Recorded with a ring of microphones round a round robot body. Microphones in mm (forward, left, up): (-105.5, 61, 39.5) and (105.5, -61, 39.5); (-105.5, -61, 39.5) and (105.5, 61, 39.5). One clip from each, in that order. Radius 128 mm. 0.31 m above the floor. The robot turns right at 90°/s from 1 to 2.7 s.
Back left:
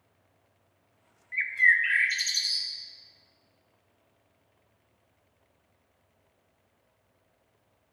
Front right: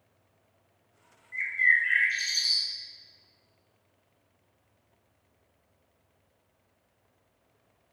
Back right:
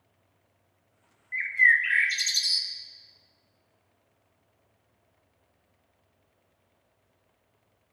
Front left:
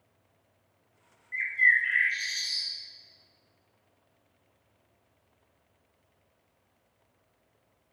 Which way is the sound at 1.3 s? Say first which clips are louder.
Back left 1 dB, back right 2 dB; 130° left.